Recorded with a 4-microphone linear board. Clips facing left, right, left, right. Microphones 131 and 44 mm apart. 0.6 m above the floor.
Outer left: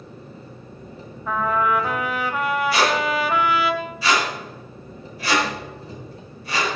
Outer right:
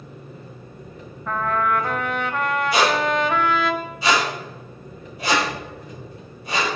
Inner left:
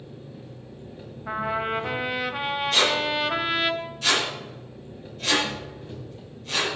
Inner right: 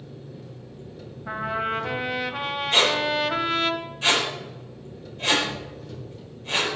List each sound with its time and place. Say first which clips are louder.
0.0 s an engine running: even, inner right 1 dB; 30° left (ahead or behind), 2.5 m
1.3 s a trumpet: outer left 1 dB, even; 5° left (ahead or behind), 0.9 m
2.7 s a squeak: outer right 4 dB, inner right 3 dB; 20° right (ahead or behind), 5.5 m